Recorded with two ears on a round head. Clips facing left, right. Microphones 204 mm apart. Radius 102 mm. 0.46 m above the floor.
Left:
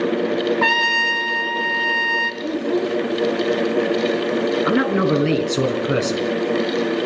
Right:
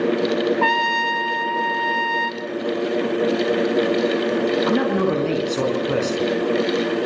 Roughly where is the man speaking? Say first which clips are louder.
Left 1 dB; centre.